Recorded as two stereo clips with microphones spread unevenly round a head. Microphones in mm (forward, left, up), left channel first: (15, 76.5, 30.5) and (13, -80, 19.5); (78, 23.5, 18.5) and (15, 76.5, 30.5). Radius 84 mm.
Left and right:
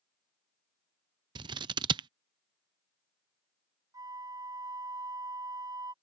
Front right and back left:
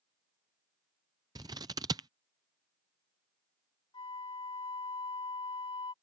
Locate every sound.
1.4 s scissors: 155° right
3.9 s a flute: 20° right